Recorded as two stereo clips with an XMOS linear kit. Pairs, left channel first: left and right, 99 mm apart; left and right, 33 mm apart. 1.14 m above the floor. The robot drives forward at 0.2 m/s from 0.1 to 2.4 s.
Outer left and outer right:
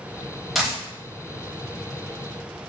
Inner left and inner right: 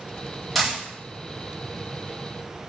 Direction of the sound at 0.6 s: Centre (ahead or behind).